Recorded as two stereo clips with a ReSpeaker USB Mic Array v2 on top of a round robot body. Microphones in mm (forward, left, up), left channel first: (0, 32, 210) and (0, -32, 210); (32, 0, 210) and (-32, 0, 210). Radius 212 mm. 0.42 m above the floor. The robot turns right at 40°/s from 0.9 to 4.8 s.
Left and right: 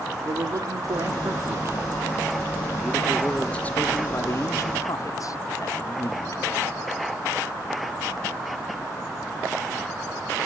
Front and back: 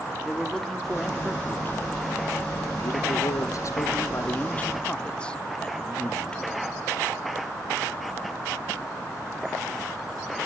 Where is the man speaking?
85° right, 1.7 m; by 6.8 s 70° left, 1.7 m.